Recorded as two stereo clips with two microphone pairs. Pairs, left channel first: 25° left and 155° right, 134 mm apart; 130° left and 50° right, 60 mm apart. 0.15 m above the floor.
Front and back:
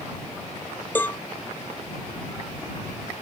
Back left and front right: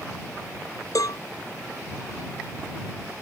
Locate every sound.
0.9 s a cowbell: 105° left